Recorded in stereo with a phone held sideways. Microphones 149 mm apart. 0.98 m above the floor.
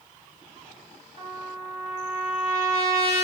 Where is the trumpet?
55° left (ahead or behind), 0.8 m.